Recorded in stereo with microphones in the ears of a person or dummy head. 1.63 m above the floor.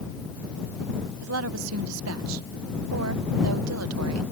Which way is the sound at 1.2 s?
80° right.